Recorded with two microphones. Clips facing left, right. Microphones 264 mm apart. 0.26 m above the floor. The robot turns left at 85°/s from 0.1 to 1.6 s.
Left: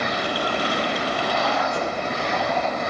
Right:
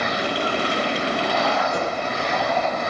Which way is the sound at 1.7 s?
50° right (ahead or behind).